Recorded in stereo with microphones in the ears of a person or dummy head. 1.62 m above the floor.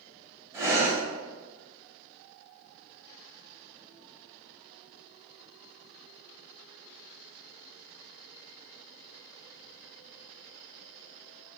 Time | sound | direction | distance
0.5 | breathing | 15° right (ahead or behind) | 0.7 m